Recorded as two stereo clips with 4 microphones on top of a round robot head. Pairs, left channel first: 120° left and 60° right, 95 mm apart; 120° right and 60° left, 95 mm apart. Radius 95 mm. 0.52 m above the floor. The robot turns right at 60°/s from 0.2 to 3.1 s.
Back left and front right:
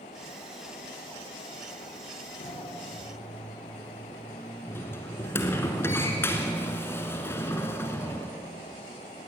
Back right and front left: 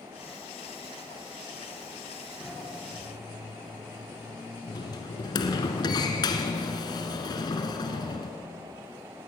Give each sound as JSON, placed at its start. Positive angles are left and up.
{"t": 2.4, "sound": "a sliding door", "azimuth_deg": 145, "distance_m": 1.4}